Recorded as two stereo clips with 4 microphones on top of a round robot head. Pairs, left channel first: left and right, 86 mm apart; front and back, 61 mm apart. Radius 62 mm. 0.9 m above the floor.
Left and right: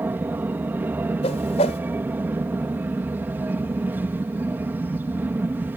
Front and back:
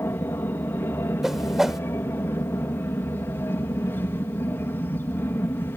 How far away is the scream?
I don't hear a scream.